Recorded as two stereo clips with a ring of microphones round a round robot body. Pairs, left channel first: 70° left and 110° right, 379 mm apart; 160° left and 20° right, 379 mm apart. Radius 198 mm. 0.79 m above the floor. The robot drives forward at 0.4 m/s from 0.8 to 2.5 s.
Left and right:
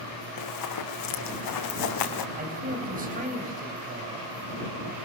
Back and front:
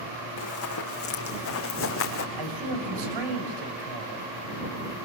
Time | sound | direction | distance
0.4 | running footsteps | 105° left | 3.5 m
2.4 | a man speaking | 45° right | 6 m